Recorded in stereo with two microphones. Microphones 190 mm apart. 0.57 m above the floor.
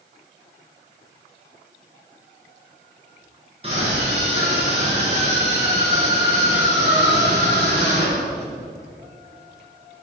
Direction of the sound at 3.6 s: 30° right (ahead or behind).